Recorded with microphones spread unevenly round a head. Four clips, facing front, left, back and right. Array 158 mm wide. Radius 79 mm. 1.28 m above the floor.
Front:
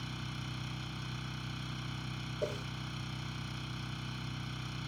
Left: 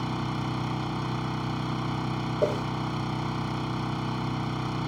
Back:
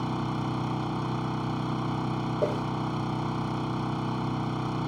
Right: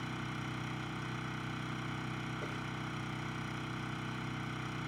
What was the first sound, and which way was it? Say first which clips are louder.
An engine running: left 11 dB, back 15 dB; 145° left.